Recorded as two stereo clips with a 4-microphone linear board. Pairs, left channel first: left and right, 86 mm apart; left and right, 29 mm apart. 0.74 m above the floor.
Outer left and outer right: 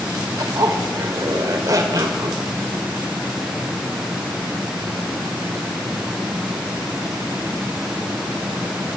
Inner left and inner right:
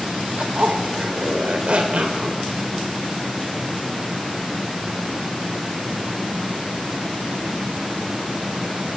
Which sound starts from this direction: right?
A zipper, at 0.4 s.